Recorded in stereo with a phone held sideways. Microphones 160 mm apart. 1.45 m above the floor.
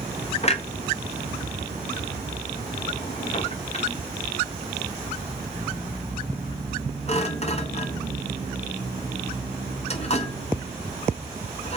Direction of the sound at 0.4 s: 40° left (ahead or behind).